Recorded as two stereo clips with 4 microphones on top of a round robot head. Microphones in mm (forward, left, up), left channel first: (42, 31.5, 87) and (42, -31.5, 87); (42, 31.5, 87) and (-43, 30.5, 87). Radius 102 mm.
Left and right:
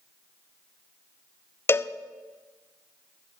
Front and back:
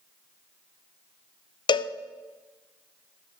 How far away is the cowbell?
About 0.6 m.